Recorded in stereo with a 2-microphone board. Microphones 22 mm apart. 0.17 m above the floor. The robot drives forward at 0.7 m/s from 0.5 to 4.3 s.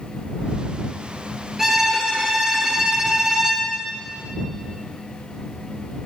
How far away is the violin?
About 1.7 m.